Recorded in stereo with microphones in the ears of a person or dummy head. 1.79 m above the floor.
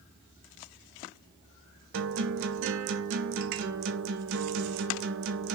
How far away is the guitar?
About 0.5 m.